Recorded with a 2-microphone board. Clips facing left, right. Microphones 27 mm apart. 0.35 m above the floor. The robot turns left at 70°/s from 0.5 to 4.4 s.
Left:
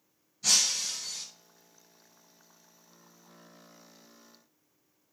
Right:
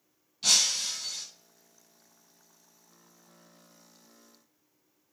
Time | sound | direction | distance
0.4 | breaking glass | 110° right | 1.2 m